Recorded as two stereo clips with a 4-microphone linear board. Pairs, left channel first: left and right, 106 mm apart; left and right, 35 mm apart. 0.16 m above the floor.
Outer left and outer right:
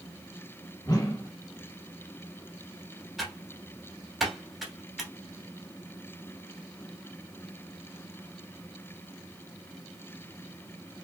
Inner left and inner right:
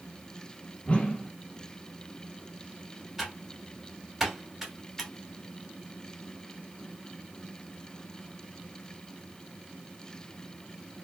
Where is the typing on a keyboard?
Centre (ahead or behind), 1.1 m.